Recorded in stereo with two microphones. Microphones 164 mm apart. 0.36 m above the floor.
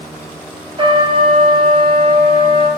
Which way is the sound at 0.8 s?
35° right (ahead or behind).